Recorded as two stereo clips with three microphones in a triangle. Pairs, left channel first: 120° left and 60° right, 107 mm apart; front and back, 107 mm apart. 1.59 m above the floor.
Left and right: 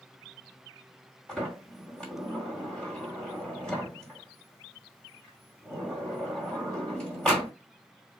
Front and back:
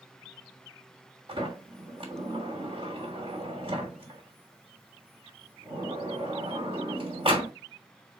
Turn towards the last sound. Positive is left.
turn(degrees=-155)